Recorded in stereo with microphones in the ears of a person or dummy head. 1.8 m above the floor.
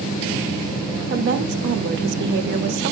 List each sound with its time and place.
1.1 s a woman speaking: 50° right (ahead or behind), 0.9 m